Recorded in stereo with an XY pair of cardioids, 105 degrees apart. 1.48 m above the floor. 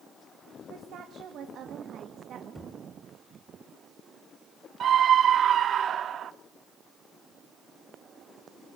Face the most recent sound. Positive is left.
turn(degrees=-55)